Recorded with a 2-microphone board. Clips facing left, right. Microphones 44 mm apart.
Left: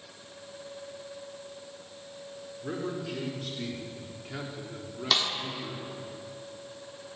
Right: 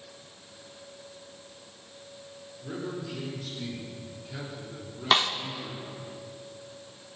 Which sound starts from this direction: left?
A man speaking, at 2.6 s.